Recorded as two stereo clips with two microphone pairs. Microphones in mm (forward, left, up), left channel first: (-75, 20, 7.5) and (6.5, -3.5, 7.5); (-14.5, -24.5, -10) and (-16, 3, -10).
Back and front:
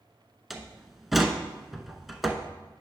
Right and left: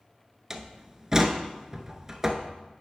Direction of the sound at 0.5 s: 80° left.